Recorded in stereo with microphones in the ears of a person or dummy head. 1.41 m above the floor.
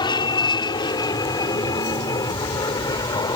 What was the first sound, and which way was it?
An aircraft, 25° left (ahead or behind).